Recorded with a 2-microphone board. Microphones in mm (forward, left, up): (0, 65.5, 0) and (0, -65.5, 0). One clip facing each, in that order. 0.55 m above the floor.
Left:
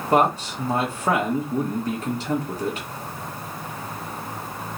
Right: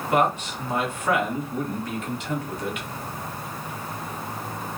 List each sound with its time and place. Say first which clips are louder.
0.1 s a man speaking: left 3 dB; 35° left (ahead or behind), 1.5 m